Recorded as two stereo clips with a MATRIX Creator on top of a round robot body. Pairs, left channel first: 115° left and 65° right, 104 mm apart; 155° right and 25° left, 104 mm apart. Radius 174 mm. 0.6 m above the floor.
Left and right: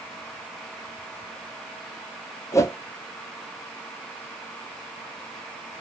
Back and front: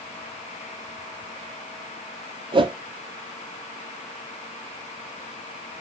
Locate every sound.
2.5 s a whoosh: 55° left, 0.7 m